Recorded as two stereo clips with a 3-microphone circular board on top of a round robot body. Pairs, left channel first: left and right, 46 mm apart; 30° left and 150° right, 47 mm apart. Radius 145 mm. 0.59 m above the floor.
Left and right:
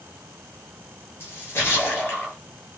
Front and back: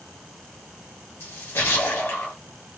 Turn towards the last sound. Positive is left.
turn(degrees=55)